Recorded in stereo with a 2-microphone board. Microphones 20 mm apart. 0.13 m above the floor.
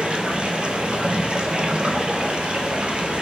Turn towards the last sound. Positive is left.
turn(degrees=-50)  # may be behind; listen again after turning